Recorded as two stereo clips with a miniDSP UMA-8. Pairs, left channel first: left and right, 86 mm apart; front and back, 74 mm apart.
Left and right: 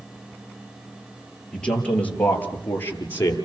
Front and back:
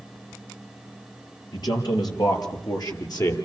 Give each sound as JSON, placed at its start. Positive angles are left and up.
{"t": 1.5, "sound": "a man speaking", "azimuth_deg": 10, "distance_m": 5.0}